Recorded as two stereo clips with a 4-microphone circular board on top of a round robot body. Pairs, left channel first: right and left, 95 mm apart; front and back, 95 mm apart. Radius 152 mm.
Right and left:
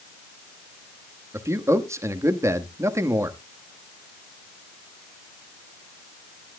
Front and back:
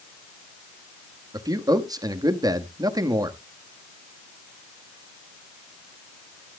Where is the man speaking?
145° left, 1.4 m.